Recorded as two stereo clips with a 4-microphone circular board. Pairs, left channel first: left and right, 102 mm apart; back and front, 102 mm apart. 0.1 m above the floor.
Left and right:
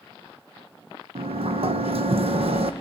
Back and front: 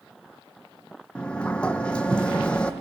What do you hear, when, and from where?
1.1 s a sliding door: 100° right, 1.2 m